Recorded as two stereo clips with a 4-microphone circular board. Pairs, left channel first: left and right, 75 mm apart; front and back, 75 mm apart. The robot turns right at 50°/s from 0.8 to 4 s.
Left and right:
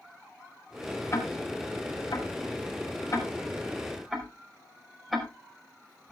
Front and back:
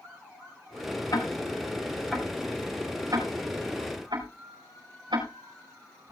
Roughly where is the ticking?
Ahead left.